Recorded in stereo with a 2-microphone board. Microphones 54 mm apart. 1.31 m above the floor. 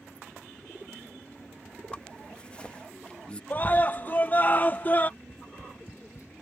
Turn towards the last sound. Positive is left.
turn(degrees=70)  # may be behind; listen again after turning